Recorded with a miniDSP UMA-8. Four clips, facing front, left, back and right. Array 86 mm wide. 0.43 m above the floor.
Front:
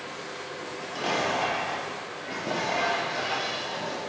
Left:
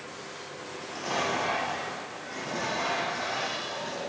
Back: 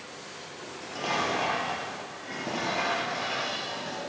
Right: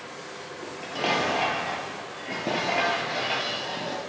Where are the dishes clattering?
90° right, 7 m.